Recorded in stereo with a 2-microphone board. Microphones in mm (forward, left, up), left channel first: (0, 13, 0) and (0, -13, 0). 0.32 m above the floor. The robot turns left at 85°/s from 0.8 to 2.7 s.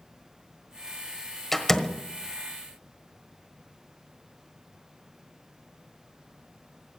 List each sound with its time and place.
1.5 s a door slam: 10° left (ahead or behind), 1.3 m; by 2.0 s 35° left (ahead or behind), 1.3 m